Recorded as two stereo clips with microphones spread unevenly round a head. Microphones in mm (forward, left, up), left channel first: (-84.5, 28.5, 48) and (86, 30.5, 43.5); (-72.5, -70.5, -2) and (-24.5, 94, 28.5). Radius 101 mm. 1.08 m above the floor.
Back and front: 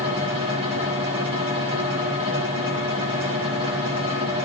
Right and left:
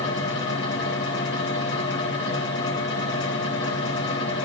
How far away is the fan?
About 6 m.